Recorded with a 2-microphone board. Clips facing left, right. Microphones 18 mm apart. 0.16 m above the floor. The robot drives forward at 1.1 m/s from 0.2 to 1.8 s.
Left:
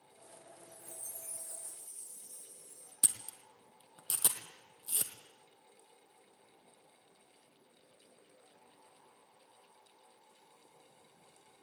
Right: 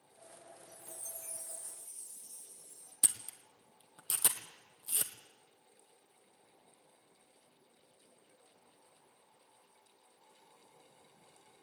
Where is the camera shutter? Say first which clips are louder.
Even; centre (ahead or behind), 1.5 m.